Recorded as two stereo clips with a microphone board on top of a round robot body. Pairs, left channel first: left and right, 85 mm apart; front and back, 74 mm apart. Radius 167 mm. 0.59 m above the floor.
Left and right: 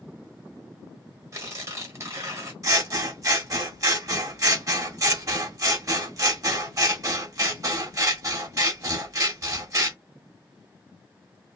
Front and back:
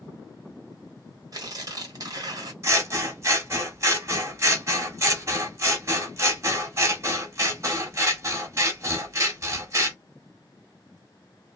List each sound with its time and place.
1.3 s tearing paper: 145° right, 1.3 m
2.6 s scissors: 135° right, 1.9 m